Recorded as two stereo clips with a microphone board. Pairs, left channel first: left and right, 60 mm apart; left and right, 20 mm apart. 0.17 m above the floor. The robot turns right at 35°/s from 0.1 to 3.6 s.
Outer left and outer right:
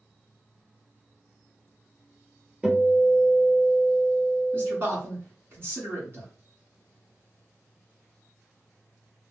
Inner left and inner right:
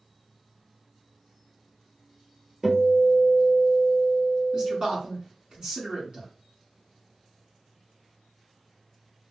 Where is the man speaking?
40° right (ahead or behind), 1.6 m.